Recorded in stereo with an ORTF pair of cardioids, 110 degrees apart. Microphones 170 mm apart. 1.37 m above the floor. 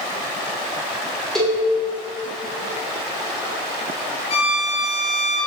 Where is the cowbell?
Straight ahead, 0.8 m.